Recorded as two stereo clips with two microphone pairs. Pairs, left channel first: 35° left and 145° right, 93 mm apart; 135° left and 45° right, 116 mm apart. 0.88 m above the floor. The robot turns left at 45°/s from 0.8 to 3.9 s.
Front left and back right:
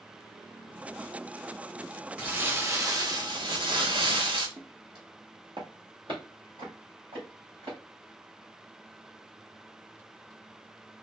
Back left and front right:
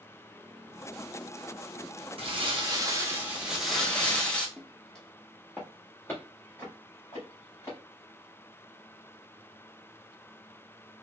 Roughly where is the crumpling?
Right.